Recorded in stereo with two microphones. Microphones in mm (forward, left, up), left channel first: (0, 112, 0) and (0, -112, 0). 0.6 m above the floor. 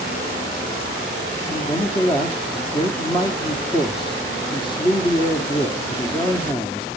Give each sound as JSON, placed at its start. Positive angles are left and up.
{"t": 1.5, "sound": "a man speaking", "side_deg": 20, "distance_m": 1.0}